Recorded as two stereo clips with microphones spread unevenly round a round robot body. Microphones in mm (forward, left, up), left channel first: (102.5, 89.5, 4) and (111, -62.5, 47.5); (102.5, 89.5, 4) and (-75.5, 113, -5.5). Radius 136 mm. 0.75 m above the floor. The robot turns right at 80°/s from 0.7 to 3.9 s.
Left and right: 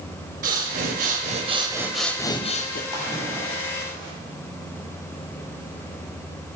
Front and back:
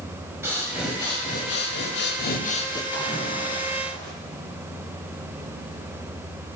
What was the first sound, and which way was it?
Breathing, 105° right.